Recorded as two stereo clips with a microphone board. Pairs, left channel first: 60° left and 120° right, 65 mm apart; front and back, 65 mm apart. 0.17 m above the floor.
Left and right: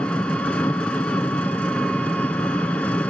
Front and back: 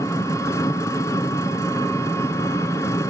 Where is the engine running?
10° right, 0.8 m.